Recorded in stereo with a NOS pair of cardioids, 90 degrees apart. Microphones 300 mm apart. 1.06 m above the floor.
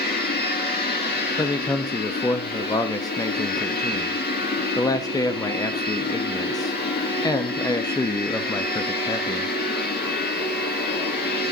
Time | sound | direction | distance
0.0 | a machine running | 30° left | 3.5 m
1.4 | a man speaking | 10° left | 1.0 m